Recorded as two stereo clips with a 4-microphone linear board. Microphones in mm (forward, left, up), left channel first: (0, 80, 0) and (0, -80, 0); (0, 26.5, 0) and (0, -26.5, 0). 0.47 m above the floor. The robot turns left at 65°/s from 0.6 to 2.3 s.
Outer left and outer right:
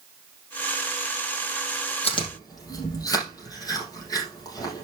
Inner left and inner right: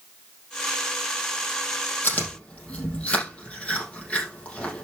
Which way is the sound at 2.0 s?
40° left (ahead or behind).